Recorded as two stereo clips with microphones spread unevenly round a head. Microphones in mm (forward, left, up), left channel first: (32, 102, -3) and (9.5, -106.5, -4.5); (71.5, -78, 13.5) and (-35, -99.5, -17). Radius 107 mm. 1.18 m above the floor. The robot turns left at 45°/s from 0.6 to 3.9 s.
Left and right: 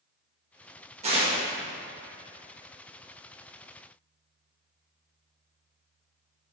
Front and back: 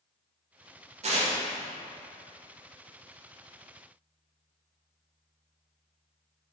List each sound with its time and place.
1.0 s tearing paper: 160° right, 1.3 m; by 1.3 s 170° right, 1.3 m